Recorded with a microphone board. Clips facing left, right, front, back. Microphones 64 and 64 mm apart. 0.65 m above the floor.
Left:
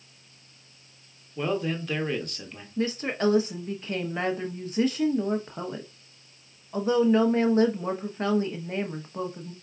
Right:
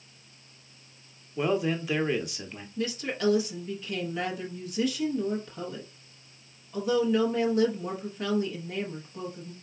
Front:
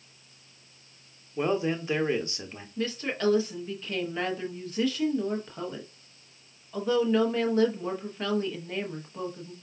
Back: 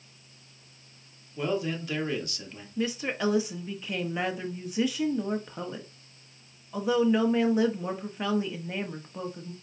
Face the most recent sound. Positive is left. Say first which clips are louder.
# left 4 dB, back 1 dB
turn(degrees=110)